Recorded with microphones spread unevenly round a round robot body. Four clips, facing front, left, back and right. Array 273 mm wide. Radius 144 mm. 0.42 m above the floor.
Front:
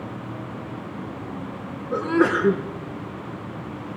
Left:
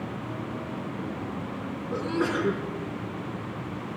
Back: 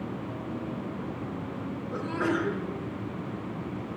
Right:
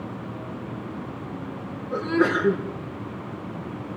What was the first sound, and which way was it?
A sneeze, 10° right.